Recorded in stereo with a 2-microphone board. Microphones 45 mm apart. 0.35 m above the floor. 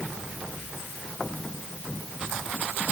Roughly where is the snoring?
No snoring in this recording.